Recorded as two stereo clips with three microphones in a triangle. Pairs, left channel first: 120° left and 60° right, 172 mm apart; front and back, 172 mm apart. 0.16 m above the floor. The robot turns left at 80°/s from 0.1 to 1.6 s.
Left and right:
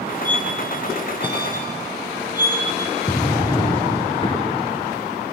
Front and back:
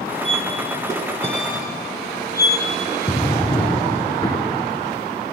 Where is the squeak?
45° left, 1.1 m; by 2.7 s 65° right, 1.1 m.